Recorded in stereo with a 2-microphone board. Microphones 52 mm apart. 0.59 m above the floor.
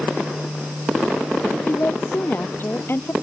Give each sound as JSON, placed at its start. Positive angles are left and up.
{"t": 1.7, "sound": "a woman speaking", "side_deg": 45}